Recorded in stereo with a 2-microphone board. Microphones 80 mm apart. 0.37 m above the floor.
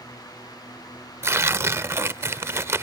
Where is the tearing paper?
30° right (ahead or behind).